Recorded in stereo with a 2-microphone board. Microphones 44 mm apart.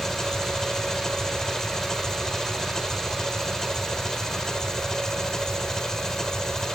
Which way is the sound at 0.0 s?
15° left (ahead or behind).